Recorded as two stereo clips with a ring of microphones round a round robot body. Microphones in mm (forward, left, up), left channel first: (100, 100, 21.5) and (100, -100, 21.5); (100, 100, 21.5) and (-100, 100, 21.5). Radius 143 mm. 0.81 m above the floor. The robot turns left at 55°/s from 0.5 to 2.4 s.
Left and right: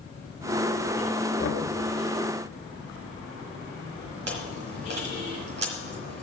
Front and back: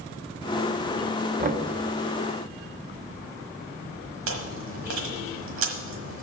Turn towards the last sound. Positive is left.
turn(degrees=-145)